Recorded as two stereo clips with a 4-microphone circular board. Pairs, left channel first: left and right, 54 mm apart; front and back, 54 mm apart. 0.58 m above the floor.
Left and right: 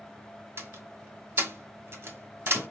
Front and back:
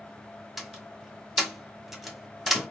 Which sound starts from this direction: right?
A door slam, at 0.6 s.